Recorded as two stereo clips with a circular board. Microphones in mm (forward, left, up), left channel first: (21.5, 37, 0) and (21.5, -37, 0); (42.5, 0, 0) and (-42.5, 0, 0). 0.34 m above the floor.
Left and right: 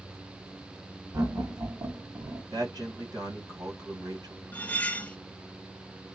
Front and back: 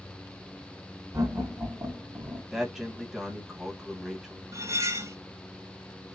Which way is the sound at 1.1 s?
130° right.